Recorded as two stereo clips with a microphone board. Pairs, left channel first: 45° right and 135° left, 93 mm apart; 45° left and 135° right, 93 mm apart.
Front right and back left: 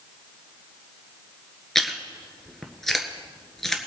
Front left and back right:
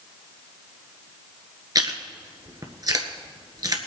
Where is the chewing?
130° right, 1.4 m.